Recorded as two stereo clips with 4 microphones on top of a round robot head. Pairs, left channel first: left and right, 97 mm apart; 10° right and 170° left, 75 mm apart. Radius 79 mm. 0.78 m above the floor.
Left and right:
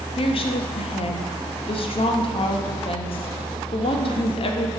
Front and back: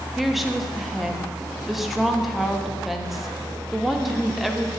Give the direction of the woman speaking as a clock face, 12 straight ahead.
9 o'clock.